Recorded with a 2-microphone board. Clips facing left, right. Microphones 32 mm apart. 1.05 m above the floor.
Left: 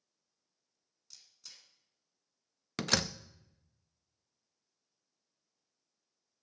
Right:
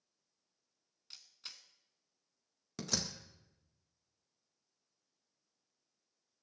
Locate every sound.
1.1 s a camera shutter: 45° right (ahead or behind), 1.5 m
2.8 s a door slam: 70° left (ahead or behind), 0.5 m